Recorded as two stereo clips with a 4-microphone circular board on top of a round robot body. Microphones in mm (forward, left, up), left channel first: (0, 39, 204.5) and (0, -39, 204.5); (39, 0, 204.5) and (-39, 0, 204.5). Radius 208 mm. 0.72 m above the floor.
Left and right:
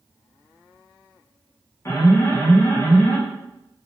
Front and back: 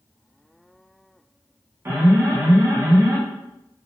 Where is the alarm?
130° left, 1.3 m.